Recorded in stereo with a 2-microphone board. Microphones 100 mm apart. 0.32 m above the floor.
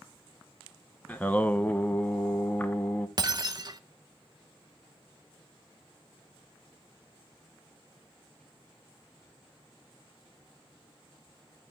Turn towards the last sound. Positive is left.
turn(degrees=-45)  # may be behind; listen again after turning